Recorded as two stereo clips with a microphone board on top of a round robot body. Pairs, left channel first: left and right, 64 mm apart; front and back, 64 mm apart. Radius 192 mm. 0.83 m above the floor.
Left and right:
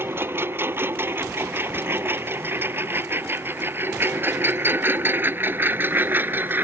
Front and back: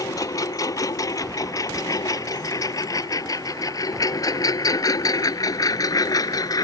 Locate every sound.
0.0 s a lawn mower: 35° right; by 6.6 s 30° right